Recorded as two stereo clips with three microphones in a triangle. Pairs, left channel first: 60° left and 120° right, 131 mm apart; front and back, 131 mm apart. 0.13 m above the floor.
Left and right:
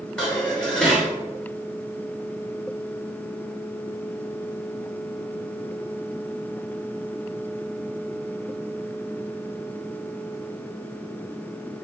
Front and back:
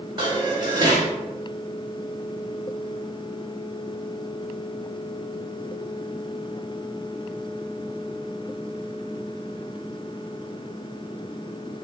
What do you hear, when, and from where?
0.2 s dishes clattering: 140° left, 1.3 m